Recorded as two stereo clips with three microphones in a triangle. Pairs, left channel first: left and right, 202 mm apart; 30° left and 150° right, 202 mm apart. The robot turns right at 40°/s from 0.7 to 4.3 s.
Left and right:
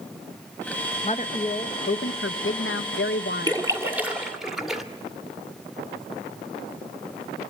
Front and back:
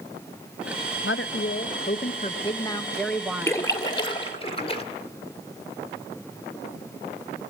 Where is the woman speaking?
35° left, 1.0 m; by 3.7 s 140° left, 1.0 m.